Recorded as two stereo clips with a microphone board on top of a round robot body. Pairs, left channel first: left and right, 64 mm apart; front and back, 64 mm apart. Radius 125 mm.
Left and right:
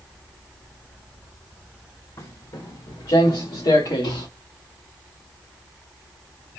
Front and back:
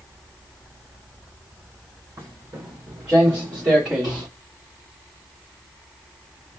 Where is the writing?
No writing in this recording.